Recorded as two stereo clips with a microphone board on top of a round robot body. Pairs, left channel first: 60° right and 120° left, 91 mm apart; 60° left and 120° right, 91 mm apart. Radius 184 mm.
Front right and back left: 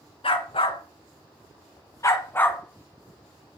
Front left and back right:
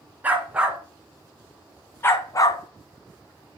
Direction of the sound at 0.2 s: 50° right.